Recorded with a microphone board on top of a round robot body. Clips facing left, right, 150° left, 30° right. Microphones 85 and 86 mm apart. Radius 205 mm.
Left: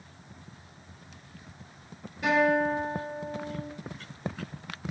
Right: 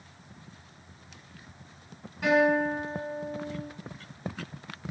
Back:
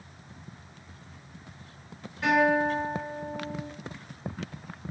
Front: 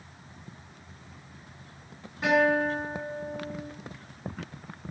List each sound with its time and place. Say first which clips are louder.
2.2 s a guitar: right 1 dB, even; 105° right, 1.4 m